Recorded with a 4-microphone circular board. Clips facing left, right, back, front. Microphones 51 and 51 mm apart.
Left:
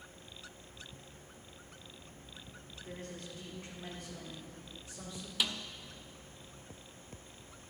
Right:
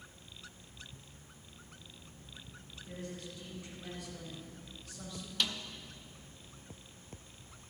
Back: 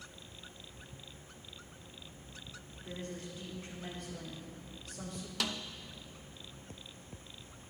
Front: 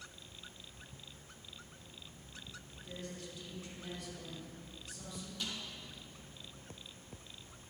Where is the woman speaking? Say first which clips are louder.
Right 1 dB, back 4 dB; 125° left, 4 m; by 5.3 s 160° left, 3 m.